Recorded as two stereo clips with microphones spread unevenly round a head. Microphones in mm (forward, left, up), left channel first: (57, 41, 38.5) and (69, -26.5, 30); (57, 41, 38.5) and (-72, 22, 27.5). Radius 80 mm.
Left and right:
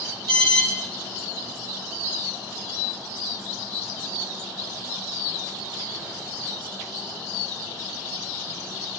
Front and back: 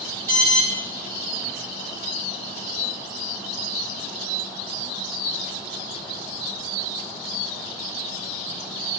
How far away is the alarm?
About 7.5 m.